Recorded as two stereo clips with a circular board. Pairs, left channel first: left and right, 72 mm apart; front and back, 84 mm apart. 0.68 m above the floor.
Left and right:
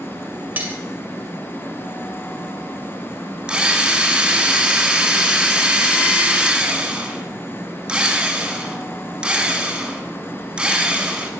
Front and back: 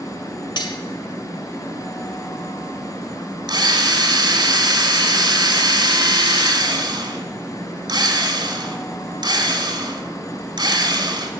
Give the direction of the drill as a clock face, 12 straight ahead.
6 o'clock.